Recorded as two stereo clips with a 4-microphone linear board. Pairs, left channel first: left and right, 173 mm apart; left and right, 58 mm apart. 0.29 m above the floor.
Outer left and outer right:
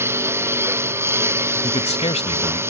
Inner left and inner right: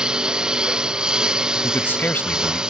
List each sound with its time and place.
0.0 s a lawn mower: 15° right (ahead or behind)
1.6 s a man speaking: 35° left (ahead or behind)